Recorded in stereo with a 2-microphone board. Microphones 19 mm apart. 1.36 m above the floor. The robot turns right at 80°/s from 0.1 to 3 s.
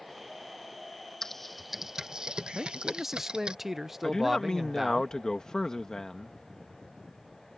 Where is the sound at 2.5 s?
55° right; by 5.0 s 20° right.